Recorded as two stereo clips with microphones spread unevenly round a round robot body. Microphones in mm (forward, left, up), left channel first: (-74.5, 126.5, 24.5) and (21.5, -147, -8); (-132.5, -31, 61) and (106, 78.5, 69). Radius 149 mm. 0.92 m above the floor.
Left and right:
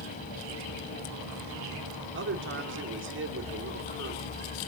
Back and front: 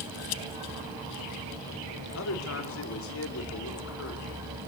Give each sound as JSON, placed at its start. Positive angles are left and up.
{"t": 2.1, "sound": "a man speaking", "azimuth_deg": -115, "distance_m": 3.0}